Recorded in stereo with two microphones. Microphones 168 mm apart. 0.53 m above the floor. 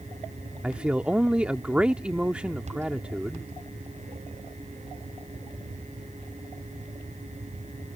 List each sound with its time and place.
0.6 s a man speaking: 5° right (ahead or behind)